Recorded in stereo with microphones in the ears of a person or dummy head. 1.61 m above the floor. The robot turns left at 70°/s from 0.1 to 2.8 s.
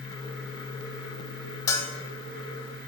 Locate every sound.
1.7 s a bell: 20° left (ahead or behind), 0.5 m; by 1.9 s 10° left (ahead or behind), 0.5 m